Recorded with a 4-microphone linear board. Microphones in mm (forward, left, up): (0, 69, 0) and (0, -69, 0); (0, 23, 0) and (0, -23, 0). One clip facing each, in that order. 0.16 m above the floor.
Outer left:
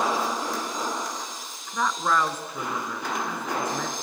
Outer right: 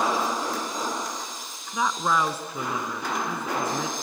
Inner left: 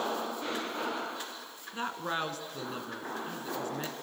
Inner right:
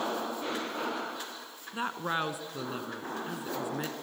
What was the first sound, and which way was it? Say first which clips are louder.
A woman speaking: even, inner right 2 dB; 10° right (ahead or behind).